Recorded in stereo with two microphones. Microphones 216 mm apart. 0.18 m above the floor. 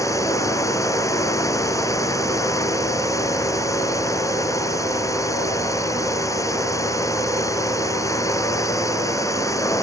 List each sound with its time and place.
0.0 s a drone: 15° left (ahead or behind)